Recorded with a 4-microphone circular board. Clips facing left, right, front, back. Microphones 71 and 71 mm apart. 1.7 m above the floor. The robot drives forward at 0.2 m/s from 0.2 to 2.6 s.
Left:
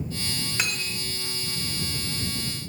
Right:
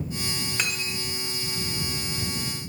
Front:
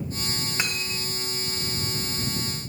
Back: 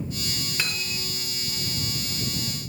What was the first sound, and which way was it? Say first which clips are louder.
Cutlery clinking: even, even; 5° left.